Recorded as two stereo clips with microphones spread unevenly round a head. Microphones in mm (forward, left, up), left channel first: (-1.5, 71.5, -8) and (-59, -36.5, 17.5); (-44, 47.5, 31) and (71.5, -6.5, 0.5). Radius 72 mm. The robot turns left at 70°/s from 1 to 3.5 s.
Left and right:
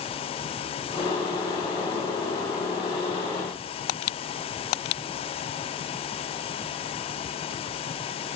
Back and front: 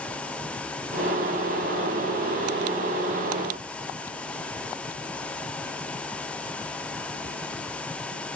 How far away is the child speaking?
I don't hear a child speaking.